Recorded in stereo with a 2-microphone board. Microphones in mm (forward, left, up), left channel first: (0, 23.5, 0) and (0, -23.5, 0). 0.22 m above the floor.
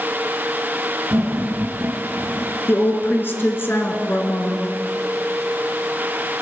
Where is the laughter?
50° right (ahead or behind), 4 m; by 2.5 s 35° right (ahead or behind), 2.5 m.